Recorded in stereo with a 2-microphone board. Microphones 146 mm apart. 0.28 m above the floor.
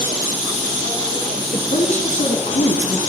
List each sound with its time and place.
1.5 s a woman speaking: 55° left (ahead or behind), 4 m; by 3.0 s 60° left (ahead or behind), 2.5 m